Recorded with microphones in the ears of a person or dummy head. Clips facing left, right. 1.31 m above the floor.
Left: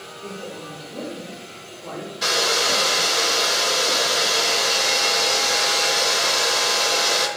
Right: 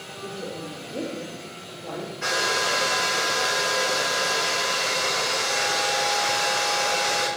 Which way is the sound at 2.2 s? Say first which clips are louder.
Left 4 dB; 45° left (ahead or behind).